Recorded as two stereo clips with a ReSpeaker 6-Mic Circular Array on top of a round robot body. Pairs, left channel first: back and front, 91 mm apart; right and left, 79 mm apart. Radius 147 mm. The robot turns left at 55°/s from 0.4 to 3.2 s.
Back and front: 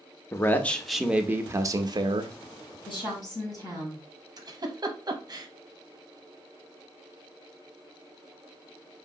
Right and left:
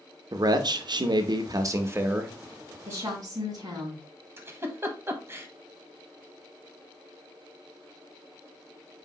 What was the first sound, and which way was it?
A man speaking, 120° left.